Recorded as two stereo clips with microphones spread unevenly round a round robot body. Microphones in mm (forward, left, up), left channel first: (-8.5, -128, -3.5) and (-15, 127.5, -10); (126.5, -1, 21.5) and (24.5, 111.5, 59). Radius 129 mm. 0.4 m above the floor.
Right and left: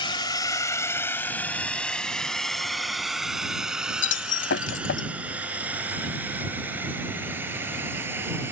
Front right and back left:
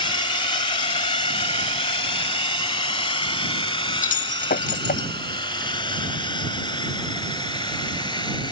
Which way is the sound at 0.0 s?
25° right.